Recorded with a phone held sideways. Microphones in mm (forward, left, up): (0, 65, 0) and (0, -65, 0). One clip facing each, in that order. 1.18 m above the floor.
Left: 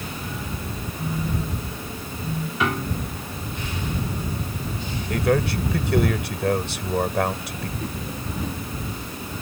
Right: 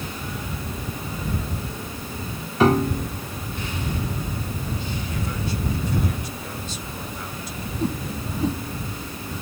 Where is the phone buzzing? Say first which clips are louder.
Left 5 dB; 40° left (ahead or behind).